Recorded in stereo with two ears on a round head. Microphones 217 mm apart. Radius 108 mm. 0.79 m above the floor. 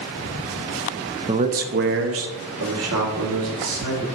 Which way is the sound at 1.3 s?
20° right (ahead or behind).